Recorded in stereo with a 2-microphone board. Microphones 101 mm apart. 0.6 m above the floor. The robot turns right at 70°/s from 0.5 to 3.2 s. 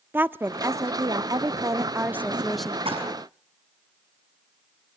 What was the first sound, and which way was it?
A woman speaking, 145° right.